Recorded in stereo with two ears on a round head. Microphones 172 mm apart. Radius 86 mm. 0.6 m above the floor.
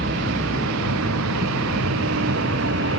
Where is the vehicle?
60° right (ahead or behind); by 3.0 s 70° right (ahead or behind).